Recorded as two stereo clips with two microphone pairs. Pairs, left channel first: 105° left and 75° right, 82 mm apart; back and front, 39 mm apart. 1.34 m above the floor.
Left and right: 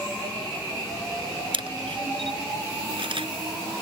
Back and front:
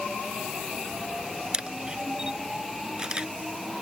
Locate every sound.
1.5 s a camera shutter: 70° right